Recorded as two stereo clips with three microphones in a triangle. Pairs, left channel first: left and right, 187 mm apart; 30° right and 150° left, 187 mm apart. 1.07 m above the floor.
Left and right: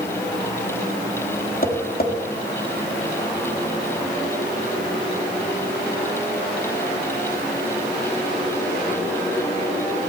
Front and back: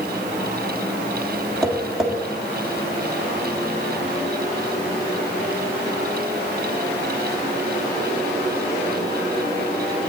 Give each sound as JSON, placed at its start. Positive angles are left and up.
{"t": 1.6, "sound": "tapping", "azimuth_deg": 60, "distance_m": 1.6}